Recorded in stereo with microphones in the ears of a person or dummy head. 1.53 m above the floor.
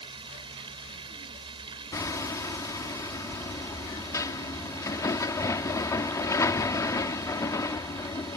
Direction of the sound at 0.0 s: 35° right (ahead or behind).